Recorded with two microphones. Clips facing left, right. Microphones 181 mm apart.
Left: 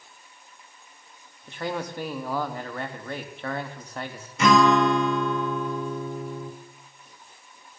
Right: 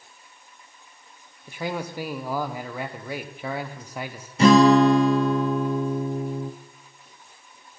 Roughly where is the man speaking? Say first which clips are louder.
Right 1 dB; centre.